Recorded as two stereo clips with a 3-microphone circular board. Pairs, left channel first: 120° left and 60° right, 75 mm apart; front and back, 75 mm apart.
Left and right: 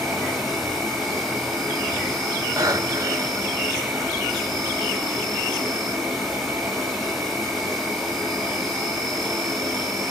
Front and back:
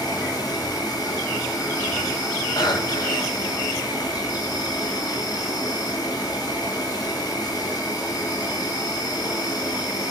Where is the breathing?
20° right, 2 m.